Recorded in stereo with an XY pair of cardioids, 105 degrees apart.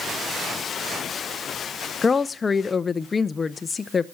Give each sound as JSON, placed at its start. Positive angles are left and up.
{"t": 2.0, "sound": "a woman speaking", "azimuth_deg": 30, "distance_m": 0.6}